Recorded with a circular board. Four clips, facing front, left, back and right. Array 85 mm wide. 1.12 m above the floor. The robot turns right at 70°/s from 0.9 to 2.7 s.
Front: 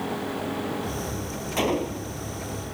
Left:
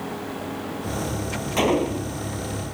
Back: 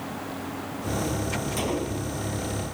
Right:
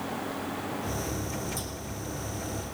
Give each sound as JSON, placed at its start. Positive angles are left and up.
{"t": 1.6, "sound": "a gunshot", "azimuth_deg": 70}